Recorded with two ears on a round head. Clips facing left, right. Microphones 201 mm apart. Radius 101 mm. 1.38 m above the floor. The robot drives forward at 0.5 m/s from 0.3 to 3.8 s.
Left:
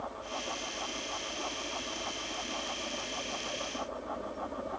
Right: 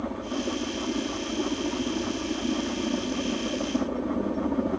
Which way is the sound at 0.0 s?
65° right (ahead or behind).